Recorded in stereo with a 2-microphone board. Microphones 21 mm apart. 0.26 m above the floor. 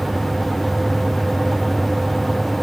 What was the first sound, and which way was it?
Only background noise.